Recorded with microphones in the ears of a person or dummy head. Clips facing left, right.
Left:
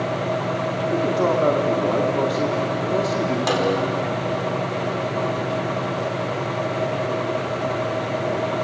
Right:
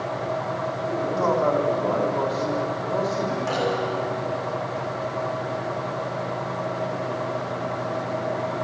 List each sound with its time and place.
0.9 s a man speaking: 40° left (ahead or behind), 4 m
3.5 s a snare drum: 80° left, 5 m